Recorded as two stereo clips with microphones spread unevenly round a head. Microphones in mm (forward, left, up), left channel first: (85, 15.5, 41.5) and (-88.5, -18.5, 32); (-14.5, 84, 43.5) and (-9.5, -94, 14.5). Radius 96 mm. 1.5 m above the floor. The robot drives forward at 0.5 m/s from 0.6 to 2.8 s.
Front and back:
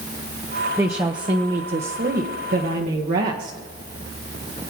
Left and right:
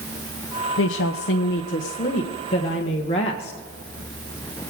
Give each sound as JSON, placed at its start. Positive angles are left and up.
{"t": 0.8, "sound": "a woman speaking", "azimuth_deg": 110, "distance_m": 0.8}